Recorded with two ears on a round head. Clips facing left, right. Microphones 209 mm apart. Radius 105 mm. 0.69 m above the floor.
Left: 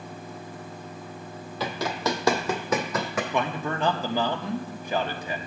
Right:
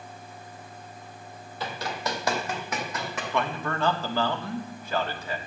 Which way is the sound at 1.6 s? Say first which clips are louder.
Left 5 dB; 65° left (ahead or behind).